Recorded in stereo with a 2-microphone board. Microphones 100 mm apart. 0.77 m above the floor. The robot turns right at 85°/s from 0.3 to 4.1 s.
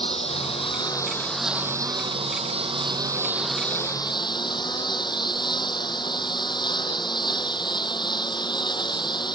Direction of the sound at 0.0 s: 85° left.